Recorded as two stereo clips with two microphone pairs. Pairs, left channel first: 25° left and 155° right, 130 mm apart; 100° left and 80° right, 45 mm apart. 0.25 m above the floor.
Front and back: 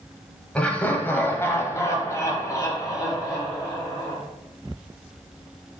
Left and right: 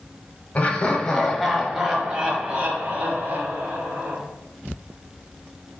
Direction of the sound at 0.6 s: 95° left.